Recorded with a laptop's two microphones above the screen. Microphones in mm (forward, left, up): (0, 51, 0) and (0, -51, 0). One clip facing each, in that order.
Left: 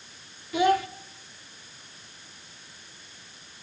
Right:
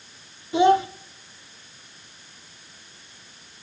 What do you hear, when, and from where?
0.5 s a child speaking: 25° right (ahead or behind), 0.9 m